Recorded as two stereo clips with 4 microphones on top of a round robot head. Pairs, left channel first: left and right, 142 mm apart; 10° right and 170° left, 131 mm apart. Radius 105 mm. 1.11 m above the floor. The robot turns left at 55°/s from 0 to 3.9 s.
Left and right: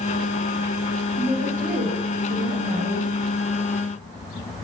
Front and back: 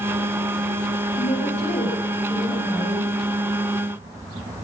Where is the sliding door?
I don't hear a sliding door.